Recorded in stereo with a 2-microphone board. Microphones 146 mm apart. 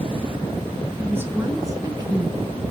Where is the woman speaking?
15° right (ahead or behind), 4 m; by 2.5 s 35° right (ahead or behind), 4 m.